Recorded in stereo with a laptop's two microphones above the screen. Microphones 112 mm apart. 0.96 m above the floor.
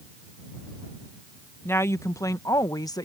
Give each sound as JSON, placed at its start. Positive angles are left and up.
{"t": 1.6, "sound": "a woman speaking", "side_deg": 20}